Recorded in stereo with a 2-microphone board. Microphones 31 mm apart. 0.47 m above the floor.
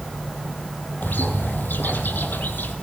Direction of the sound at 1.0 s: 75° left (ahead or behind).